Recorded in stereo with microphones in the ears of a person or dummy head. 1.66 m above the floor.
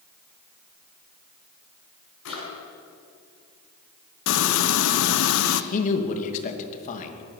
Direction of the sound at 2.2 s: 70° left (ahead or behind).